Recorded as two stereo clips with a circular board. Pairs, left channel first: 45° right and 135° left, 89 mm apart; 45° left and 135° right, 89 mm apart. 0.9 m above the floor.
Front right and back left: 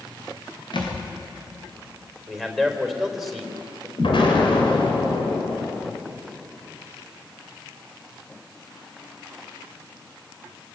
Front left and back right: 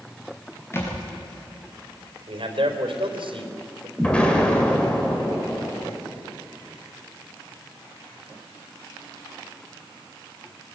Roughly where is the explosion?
Ahead right.